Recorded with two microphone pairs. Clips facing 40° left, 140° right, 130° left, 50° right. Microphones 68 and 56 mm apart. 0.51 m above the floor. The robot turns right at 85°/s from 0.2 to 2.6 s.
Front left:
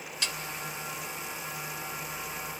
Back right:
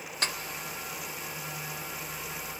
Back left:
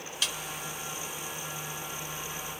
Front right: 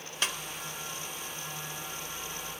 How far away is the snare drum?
About 0.7 m.